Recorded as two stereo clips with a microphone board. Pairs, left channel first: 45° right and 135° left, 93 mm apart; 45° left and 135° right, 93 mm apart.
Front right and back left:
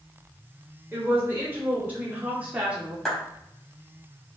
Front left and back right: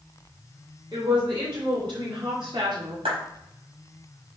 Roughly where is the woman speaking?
Behind.